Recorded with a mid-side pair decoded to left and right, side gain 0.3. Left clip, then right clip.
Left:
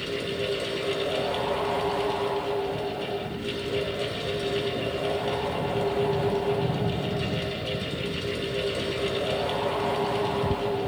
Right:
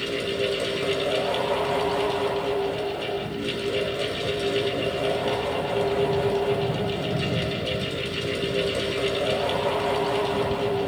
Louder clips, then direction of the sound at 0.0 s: Right 3 dB; 45° right.